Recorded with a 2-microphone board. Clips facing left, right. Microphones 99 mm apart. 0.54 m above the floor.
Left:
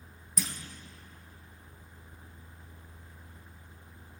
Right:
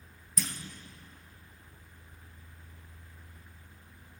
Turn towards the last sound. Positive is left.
turn(degrees=5)  # may be behind; listen again after turning